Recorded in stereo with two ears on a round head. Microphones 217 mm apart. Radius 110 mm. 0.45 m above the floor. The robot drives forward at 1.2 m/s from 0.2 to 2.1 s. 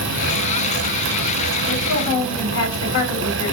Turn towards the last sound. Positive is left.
turn(degrees=65)  # may be behind; listen again after turning